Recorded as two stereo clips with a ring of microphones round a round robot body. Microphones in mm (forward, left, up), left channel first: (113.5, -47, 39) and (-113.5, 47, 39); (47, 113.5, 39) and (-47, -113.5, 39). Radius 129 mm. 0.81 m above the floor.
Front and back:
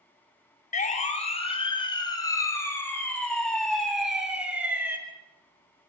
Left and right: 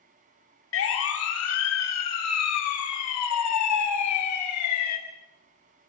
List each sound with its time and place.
0.7 s a siren: 35° left, 2.5 m; by 5.0 s 75° left, 3.5 m